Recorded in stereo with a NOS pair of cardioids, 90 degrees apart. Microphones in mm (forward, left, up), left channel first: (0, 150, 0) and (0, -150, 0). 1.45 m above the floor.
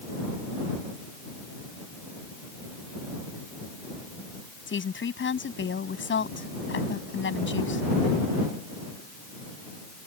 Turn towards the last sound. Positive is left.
turn(degrees=40)